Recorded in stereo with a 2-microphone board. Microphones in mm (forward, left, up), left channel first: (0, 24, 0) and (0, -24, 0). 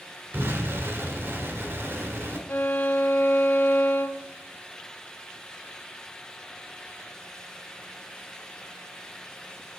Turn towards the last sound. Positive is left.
turn(degrees=50)  # may be behind; listen again after turning